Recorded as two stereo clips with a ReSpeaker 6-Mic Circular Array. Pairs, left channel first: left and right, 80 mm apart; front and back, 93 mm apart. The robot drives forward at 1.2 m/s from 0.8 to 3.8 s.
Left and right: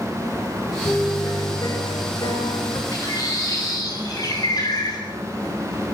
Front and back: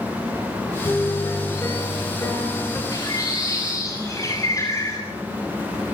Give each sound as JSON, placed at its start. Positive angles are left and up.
{"t": 0.8, "sound": "a piano", "azimuth_deg": 50, "distance_m": 7.0}
{"t": 2.9, "sound": "a bird", "azimuth_deg": 45, "distance_m": 9.5}